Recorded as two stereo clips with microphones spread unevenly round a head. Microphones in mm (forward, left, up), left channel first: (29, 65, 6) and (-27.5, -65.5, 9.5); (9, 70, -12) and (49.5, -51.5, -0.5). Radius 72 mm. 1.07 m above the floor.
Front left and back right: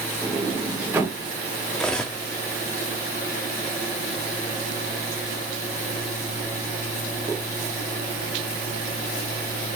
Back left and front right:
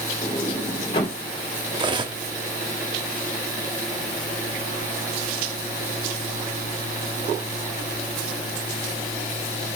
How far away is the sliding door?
About 2.5 m.